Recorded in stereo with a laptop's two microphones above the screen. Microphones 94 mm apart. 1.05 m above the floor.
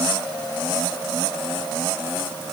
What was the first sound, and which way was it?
Only background noise.